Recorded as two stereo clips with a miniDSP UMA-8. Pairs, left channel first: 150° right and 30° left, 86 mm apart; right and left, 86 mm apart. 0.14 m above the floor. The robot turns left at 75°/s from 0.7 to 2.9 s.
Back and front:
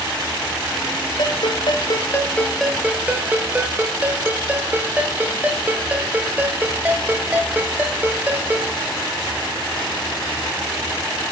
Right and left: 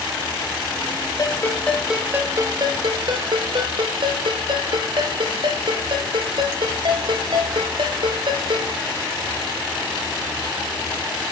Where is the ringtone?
135° right, 1.7 m; by 8.8 s 100° left, 1.7 m.